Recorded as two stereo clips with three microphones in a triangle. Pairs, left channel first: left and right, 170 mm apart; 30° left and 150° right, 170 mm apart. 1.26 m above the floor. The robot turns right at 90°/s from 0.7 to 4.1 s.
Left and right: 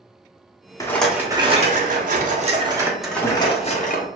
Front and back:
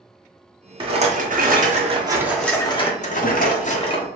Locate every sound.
0.8 s a rattle: 155° left, 0.7 m; by 4.1 s 90° left, 0.7 m